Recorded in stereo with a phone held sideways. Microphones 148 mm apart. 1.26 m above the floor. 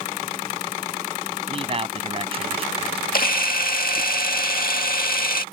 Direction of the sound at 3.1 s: 75° left (ahead or behind).